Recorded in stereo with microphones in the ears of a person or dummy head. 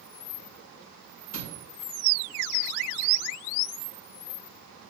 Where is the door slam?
55° left (ahead or behind), 7 m.